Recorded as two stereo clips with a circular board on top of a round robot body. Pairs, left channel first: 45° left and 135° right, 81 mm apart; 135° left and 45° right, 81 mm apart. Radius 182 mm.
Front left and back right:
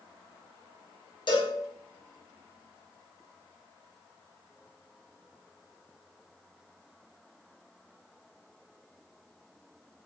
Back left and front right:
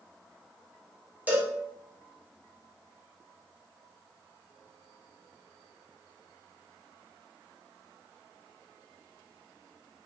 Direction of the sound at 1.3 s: 25° left.